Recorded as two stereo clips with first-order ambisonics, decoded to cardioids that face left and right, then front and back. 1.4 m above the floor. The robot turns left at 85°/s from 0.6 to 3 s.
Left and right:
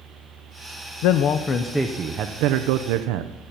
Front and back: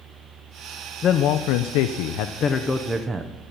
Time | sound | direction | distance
1.0 | a man speaking | 65° left | 0.5 m